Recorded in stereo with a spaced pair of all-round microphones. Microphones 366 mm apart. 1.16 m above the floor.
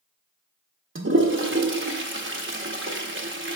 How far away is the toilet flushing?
About 0.6 m.